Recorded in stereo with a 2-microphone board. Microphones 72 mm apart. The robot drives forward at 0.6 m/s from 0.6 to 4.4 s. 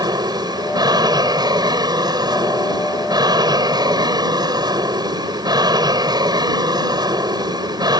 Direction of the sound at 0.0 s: 75° right (ahead or behind).